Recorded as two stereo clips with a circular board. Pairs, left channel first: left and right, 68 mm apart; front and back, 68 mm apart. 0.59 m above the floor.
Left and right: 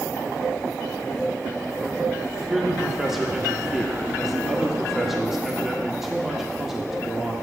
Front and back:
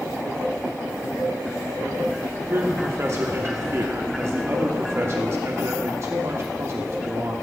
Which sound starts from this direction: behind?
A man speaking, at 2.5 s.